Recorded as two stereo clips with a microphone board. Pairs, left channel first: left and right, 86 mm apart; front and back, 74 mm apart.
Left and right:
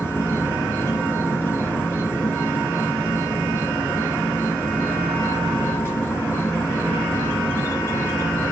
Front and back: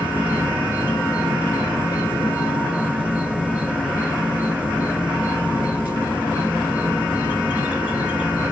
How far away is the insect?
About 2.5 m.